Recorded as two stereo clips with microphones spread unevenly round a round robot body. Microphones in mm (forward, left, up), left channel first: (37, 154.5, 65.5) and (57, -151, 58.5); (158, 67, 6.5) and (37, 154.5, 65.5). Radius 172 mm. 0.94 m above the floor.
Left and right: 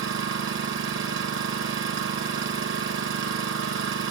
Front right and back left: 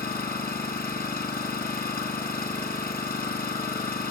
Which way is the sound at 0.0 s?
135° right.